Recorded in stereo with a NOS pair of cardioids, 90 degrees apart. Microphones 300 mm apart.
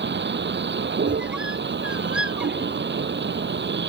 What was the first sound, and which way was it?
A vehicle, 35° right.